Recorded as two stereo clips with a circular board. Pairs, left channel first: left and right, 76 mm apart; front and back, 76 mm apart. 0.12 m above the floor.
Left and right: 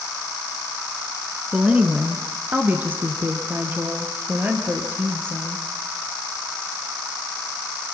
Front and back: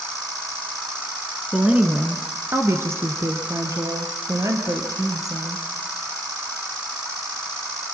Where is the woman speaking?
135° right, 1.6 m; by 5.7 s 150° right, 4 m.